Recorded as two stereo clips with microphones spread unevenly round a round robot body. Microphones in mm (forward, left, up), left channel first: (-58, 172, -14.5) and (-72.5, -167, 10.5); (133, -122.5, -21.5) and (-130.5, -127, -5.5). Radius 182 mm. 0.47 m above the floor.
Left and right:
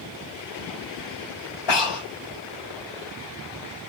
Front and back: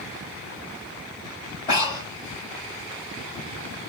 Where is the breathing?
80° left, 1.2 m.